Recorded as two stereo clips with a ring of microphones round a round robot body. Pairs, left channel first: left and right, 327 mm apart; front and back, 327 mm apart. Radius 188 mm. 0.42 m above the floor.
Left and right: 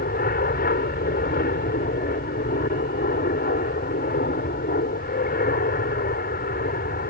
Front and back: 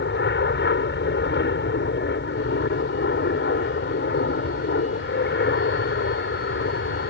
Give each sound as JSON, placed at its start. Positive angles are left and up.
{"t": 0.0, "sound": "an aircraft", "azimuth_deg": 40}